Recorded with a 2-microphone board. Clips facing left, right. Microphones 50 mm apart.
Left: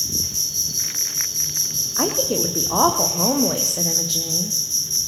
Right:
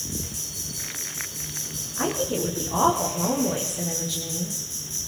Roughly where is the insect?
Centre.